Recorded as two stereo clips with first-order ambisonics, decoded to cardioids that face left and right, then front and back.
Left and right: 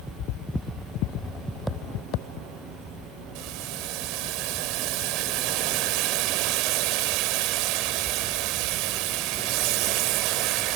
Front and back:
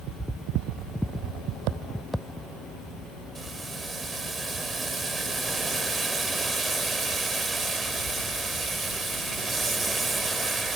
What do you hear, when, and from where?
3.4 s boiling: 100° right